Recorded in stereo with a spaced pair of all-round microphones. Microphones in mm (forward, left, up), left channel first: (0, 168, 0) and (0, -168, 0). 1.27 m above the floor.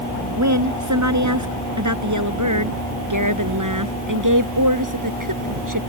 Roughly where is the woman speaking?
Right.